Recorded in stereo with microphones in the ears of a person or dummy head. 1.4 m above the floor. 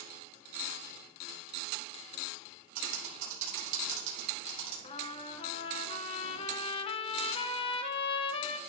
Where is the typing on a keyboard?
65° right (ahead or behind), 2.5 m.